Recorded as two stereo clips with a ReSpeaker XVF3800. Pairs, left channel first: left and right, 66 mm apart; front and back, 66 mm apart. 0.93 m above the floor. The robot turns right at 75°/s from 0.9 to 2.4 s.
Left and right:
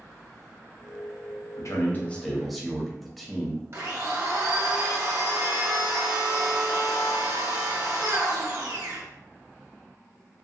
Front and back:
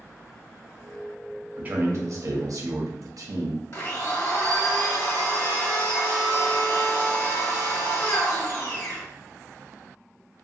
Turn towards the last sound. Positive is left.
turn(degrees=-45)